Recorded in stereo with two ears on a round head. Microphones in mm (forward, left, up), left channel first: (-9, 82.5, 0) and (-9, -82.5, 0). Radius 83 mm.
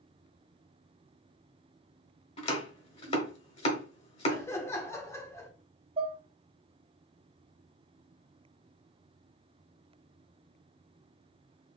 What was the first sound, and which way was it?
Chopping, 30° left (ahead or behind).